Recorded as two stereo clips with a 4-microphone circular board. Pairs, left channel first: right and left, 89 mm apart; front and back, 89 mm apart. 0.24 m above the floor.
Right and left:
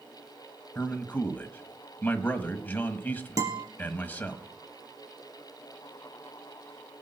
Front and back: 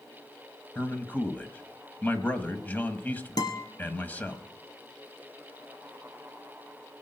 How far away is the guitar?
About 2.5 m.